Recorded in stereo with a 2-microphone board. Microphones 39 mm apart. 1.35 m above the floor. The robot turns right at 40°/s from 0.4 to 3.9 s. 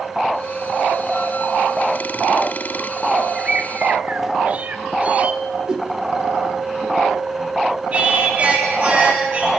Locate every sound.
3.4 s a bird: 20° right (ahead or behind), 1.2 m; by 5.4 s 40° right (ahead or behind), 1.2 m
5.7 s a whoosh: 20° right (ahead or behind), 1.6 m
7.9 s singing: 35° right (ahead or behind), 8 m